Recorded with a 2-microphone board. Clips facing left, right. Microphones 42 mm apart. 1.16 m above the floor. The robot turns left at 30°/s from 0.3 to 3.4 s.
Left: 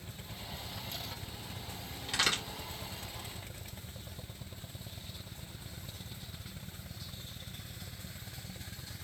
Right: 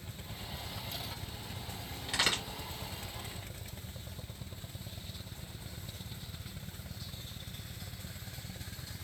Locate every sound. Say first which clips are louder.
2.1 s a crack: even; centre (ahead or behind), 2 m; by 2.4 s 10° right (ahead or behind), 2 m